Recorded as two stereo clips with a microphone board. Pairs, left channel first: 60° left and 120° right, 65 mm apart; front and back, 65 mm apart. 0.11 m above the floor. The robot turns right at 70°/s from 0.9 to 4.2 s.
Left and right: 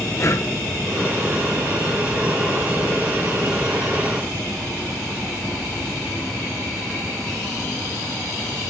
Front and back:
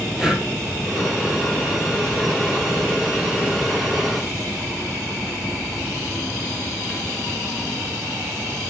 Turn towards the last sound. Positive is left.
turn(degrees=-30)